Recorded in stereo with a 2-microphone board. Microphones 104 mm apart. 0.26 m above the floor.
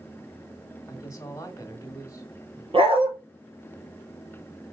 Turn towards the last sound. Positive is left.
turn(degrees=-65)  # may be behind; listen again after turning